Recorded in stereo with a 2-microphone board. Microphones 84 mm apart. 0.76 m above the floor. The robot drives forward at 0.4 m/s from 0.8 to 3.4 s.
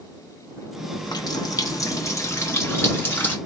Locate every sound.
1.0 s a running tap: 55° left (ahead or behind), 0.6 m; by 3.4 s 25° left (ahead or behind), 1.3 m